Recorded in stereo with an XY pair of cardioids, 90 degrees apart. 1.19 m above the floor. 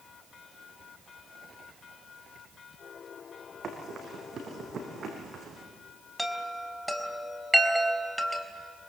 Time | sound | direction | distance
3.6 | running footsteps | 60° right | 5 m
6.2 | a chime | straight ahead | 3.5 m